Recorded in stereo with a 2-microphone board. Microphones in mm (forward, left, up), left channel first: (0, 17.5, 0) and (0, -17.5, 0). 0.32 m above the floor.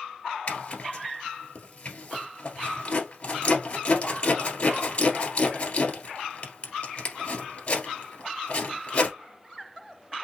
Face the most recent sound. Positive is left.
turn(degrees=45)  # may be behind; listen again after turning